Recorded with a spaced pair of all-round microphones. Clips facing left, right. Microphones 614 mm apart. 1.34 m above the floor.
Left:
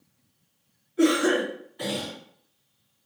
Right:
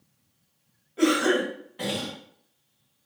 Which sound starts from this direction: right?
A cough, at 1.0 s.